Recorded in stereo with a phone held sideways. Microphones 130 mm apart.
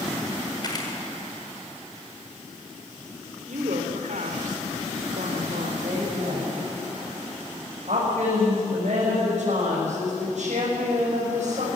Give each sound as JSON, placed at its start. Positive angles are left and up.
{"t": 0.6, "sound": "a camera shutter", "side_deg": 35, "distance_m": 5.0}
{"t": 3.5, "sound": "a woman speaking", "side_deg": -85, "distance_m": 3.5}
{"t": 5.8, "sound": "a woman speaking", "side_deg": -65, "distance_m": 6.5}